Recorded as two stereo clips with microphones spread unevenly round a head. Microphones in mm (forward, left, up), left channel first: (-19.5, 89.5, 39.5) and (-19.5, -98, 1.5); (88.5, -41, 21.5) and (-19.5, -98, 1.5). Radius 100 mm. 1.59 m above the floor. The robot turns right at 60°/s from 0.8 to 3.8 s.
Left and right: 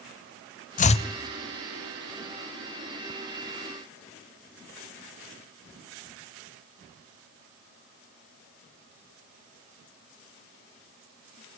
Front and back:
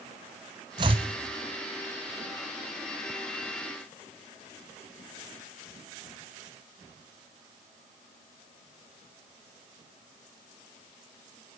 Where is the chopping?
145° left, 0.5 m; by 1.1 s 160° left, 0.5 m.